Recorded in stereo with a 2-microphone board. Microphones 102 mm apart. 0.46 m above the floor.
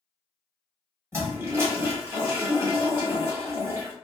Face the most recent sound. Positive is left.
turn(degrees=-30)  # may be behind; listen again after turning